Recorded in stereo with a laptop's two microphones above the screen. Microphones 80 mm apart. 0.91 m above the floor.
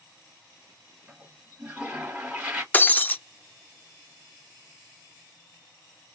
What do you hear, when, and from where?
1.1 s a toilet flushing: 10° right (ahead or behind), 2.5 m
2.7 s breaking glass: 25° left (ahead or behind), 0.5 m